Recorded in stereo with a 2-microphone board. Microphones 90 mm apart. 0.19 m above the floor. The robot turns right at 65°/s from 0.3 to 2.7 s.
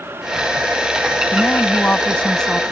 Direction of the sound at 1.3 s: 20° left (ahead or behind).